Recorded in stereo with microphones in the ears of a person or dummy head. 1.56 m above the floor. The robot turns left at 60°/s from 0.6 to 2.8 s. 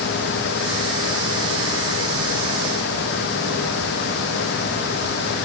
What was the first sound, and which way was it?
Only background noise.